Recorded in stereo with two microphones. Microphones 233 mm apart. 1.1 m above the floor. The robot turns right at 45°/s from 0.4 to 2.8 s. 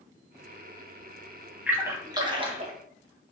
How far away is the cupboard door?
No cupboard door in this recording.